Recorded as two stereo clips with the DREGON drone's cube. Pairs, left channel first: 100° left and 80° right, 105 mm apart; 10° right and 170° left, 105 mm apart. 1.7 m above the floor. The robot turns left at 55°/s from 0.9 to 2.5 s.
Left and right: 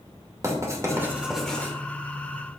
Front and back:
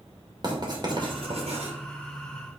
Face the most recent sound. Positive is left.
turn(degrees=130)